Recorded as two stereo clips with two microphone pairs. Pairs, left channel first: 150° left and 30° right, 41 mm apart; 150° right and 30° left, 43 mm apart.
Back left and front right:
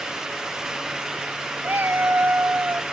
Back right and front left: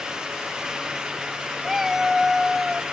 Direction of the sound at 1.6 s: 50° right.